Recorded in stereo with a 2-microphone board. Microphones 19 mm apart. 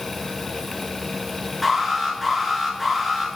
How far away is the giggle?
I don't hear a giggle.